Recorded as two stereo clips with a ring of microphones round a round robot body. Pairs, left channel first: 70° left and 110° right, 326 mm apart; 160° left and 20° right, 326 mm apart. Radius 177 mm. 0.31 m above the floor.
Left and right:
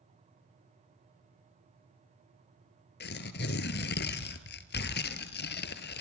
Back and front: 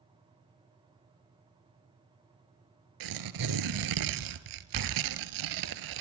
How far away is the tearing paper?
About 1.2 m.